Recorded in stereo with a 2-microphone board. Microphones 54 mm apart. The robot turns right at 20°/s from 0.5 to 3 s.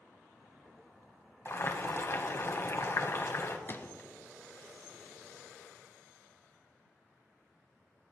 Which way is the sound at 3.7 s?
40° left (ahead or behind).